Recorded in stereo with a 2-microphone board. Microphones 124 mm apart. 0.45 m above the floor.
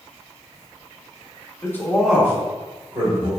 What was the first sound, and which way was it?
A man speaking, 25° left (ahead or behind).